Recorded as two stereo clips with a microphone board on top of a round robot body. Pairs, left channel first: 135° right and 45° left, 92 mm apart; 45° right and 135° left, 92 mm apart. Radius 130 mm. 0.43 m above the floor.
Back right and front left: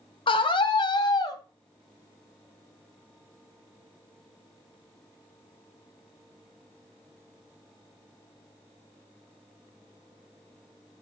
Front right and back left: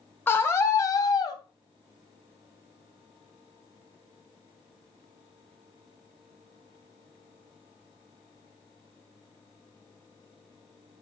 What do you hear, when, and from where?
0.3 s a scream: 110° right, 3 m; by 1.4 s 90° right, 3.5 m